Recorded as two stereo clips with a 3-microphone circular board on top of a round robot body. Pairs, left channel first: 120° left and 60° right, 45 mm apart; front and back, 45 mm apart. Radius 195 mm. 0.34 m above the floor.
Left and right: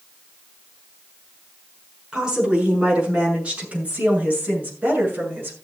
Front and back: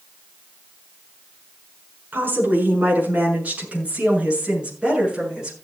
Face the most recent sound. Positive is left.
turn(degrees=-105)